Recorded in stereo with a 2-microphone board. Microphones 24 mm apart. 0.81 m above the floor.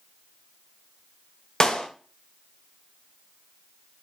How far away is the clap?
About 0.7 m.